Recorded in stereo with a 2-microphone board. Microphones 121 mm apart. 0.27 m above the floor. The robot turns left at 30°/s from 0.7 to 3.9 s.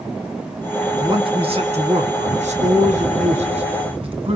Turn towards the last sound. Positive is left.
turn(degrees=-130)